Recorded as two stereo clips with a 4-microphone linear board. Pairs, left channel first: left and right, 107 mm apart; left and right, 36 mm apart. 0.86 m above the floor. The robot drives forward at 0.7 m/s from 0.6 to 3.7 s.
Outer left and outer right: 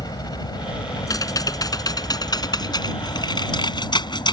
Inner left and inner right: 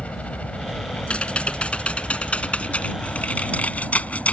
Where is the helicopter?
40° left (ahead or behind).